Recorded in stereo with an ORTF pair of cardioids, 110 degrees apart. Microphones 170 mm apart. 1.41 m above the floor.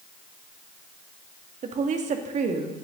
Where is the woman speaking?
45° right, 2 m.